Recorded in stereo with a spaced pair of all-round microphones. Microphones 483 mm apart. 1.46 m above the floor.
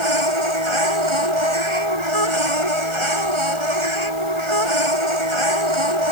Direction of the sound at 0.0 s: 75° right (ahead or behind).